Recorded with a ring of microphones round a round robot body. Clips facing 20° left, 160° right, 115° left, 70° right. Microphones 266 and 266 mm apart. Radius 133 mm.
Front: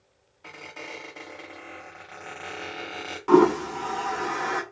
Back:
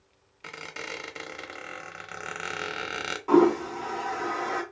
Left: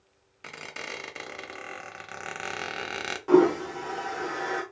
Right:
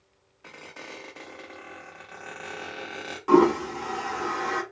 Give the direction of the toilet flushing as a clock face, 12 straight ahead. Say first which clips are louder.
Front 2 dB, even; 12 o'clock.